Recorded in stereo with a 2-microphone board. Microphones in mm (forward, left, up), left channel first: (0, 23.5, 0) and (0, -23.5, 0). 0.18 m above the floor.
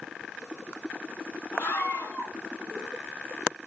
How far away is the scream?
About 1.8 m.